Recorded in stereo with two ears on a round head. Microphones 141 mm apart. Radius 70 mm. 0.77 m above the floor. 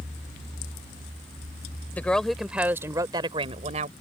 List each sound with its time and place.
1.9 s a woman speaking: 10° left (ahead or behind); by 3.9 s 45° right (ahead or behind)